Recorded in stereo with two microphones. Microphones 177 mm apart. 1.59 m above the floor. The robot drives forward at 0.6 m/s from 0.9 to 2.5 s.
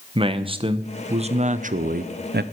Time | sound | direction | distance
0.1 | a man speaking | 30° right (ahead or behind) | 1.1 m